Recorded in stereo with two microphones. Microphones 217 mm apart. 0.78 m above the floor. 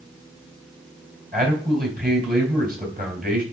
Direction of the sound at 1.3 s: 40° right (ahead or behind).